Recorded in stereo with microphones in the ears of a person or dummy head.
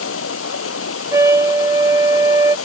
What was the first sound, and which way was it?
Running water, 85° left.